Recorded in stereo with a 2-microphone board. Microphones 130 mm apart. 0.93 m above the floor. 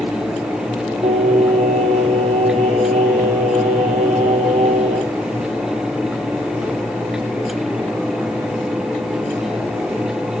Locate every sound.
1.0 s singing: 60° right (ahead or behind), 1.5 m